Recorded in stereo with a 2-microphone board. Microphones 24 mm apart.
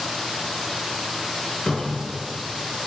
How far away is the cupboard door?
About 3.5 m.